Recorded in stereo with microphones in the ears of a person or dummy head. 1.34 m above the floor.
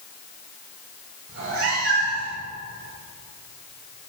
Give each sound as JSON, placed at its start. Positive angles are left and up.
{"t": 1.3, "sound": "a cat meowing", "side_deg": -55, "distance_m": 2.5}